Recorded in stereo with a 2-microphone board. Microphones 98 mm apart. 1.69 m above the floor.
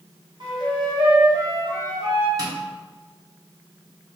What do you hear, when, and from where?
0.4 s a flute: 50° right (ahead or behind), 1.7 m
2.4 s tapping: 35° right (ahead or behind), 1.5 m